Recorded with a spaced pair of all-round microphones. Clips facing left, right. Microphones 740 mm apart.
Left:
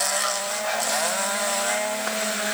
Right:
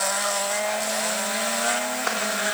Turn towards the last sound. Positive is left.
No sound to turn to.